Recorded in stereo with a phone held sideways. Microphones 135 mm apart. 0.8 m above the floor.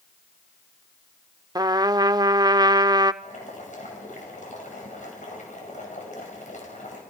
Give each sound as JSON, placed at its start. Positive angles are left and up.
{"t": 1.6, "sound": "a trumpet", "side_deg": -30, "distance_m": 0.5}
{"t": 3.2, "sound": "boiling", "side_deg": 65, "distance_m": 5.5}